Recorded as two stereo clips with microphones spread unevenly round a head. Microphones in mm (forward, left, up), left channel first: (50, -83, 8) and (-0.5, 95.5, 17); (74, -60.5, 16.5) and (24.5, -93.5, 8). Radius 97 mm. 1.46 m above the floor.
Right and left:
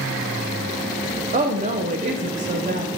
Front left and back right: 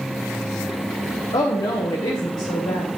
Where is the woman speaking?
50° left, 0.8 m.